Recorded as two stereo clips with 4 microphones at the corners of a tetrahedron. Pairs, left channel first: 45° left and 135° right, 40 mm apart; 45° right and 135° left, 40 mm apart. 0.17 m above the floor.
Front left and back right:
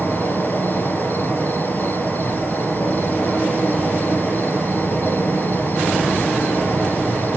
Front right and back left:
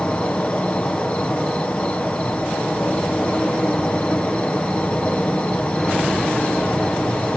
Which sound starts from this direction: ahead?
An insect, at 0.0 s.